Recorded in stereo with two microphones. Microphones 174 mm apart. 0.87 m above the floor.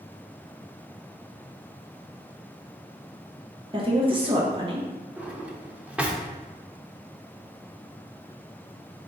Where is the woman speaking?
30° right (ahead or behind), 0.8 m.